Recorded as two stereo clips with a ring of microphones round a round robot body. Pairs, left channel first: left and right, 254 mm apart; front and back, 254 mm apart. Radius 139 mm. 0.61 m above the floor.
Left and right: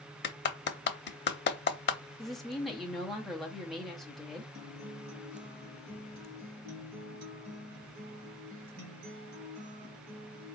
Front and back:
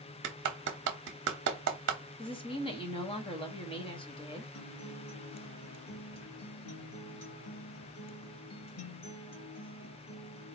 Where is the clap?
135° left, 0.8 m.